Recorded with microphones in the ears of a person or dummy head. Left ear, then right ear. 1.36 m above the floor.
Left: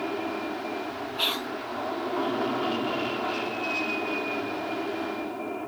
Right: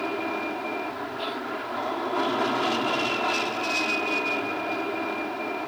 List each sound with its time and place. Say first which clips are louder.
0.0 s an aircraft: right 2 dB; 70° right (ahead or behind)
1.2 s whispering: left 7 dB; 50° left (ahead or behind)